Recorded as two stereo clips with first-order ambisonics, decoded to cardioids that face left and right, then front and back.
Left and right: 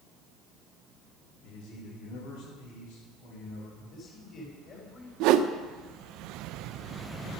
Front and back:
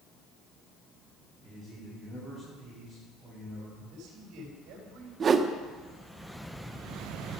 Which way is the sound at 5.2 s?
115° right.